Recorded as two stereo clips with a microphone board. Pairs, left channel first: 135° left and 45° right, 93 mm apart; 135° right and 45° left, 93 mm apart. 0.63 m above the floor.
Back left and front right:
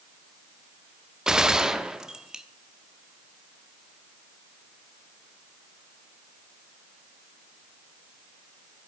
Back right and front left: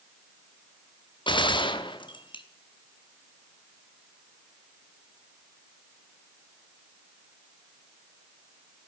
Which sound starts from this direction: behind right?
A gunshot, at 1.3 s.